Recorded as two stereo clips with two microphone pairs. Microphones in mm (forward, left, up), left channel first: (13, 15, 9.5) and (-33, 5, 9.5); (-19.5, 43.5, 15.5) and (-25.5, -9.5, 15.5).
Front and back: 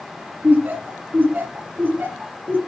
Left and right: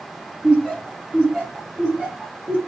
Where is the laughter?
165° right, 2 m.